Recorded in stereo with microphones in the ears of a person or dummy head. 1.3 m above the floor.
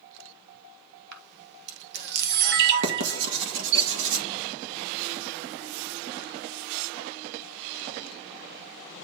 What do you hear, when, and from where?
1.1 s a camera shutter: 55° right (ahead or behind), 1.2 m
2.8 s writing: 65° right (ahead or behind), 1.7 m